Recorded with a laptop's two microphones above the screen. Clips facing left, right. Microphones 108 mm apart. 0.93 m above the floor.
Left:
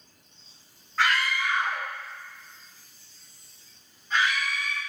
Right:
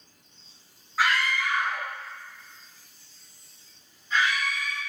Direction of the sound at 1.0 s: 10° right (ahead or behind).